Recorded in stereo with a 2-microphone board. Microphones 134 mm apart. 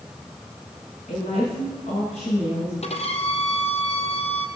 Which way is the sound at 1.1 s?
65° left (ahead or behind).